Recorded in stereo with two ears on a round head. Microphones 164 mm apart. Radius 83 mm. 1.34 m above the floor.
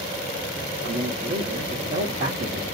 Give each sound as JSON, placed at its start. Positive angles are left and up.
{"t": 0.8, "sound": "a man speaking", "side_deg": -40, "distance_m": 1.0}